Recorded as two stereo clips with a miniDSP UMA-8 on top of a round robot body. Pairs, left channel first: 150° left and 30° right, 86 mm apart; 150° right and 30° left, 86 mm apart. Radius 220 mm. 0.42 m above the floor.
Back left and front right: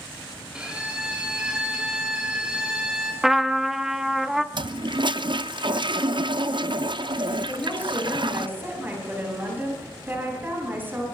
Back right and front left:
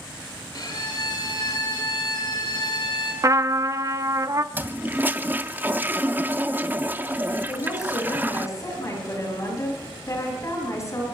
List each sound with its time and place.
0.5 s a violin: 110° right, 7.5 m
3.2 s a trumpet: 55° left, 1.4 m
4.5 s a toilet flushing: 35° right, 0.9 m
7.5 s a woman speaking: 95° right, 8.5 m